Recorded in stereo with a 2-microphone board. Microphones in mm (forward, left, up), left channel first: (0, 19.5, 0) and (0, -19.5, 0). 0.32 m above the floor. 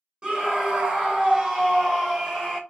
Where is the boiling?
I don't hear boiling.